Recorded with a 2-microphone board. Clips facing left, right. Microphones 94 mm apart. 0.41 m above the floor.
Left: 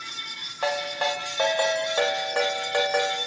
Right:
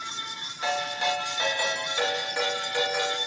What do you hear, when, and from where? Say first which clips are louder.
0.6 s a ringtone: left 2 dB; 55° left (ahead or behind), 0.9 m